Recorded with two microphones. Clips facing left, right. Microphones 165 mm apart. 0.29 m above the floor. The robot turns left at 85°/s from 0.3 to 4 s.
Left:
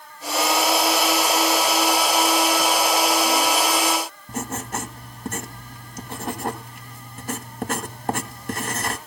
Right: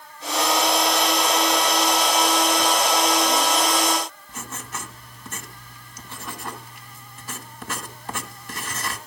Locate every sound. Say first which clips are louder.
4.3 s writing: left 8 dB; 50° left (ahead or behind), 1.7 m